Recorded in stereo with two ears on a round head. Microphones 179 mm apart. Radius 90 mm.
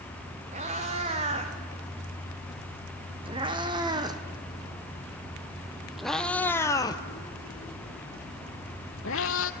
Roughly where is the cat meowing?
Right.